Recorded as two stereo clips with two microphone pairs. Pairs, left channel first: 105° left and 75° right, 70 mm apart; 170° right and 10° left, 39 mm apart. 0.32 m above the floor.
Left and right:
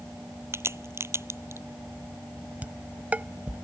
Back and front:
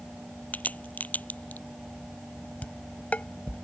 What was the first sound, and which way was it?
A crack, 125° right.